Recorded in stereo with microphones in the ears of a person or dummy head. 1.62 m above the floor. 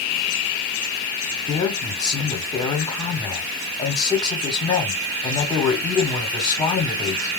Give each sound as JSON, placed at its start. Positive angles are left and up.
{"t": 1.5, "sound": "a man speaking", "side_deg": 20, "distance_m": 1.3}